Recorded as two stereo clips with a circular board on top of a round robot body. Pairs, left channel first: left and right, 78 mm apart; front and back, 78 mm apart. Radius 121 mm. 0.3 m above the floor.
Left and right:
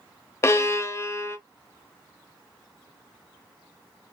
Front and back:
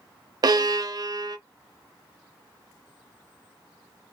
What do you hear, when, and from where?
0.4 s a violin: 145° left, 0.6 m